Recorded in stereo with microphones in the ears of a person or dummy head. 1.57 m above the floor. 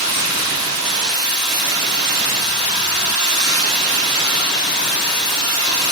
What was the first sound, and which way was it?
Running water, 35° right (ahead or behind).